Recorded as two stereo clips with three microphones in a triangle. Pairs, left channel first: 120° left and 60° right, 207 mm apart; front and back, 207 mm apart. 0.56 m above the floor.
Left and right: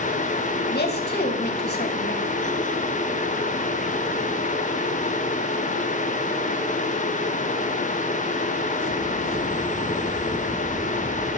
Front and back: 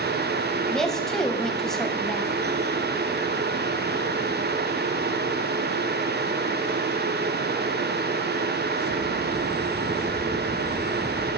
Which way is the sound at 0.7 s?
90° left.